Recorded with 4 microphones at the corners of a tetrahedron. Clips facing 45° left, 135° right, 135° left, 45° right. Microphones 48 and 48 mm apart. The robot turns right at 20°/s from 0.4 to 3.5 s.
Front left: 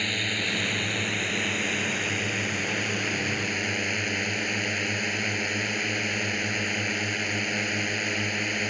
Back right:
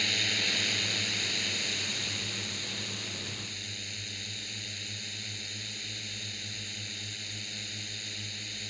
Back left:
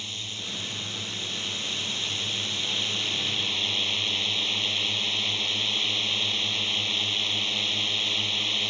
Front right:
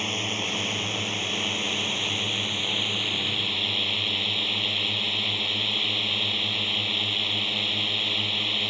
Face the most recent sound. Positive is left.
turn(degrees=35)